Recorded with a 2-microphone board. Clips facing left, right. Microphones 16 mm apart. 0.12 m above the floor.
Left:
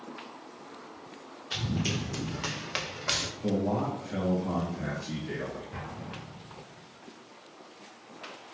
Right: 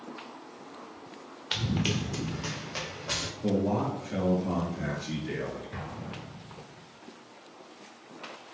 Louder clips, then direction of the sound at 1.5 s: Right 2 dB; 55° right (ahead or behind).